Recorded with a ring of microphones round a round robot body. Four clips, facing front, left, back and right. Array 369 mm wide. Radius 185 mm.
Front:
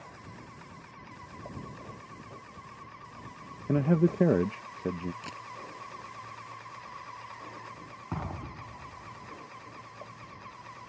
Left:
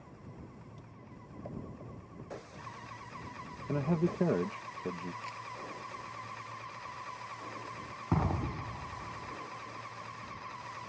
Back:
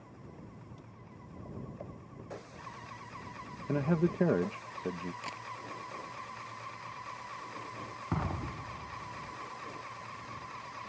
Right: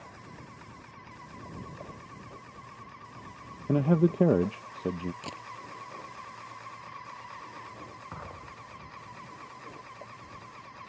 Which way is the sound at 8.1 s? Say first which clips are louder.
Left 10 dB, back 2 dB; 105° left.